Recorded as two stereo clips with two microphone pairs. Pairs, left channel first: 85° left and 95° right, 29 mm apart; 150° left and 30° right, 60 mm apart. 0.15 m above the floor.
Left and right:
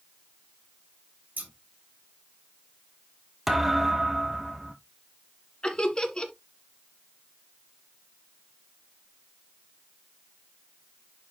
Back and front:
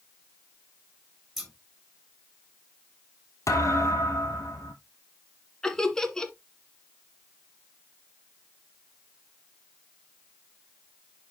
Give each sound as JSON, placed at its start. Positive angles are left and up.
{"t": 1.4, "sound": "scissors", "azimuth_deg": -120, "distance_m": 4.0}
{"t": 3.5, "sound": "a thud", "azimuth_deg": 180, "distance_m": 2.0}
{"t": 5.6, "sound": "laughter", "azimuth_deg": 75, "distance_m": 1.7}